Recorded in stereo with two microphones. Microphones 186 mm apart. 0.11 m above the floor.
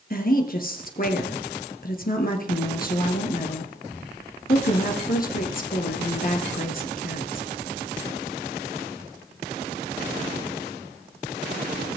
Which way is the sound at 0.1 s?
50° left (ahead or behind).